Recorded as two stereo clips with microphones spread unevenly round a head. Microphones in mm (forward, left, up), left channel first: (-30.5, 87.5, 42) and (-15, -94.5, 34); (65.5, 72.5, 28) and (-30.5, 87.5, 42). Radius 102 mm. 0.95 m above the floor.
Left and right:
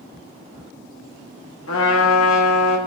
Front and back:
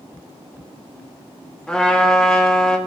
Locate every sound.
1.7 s a trumpet: 75° left, 1.4 m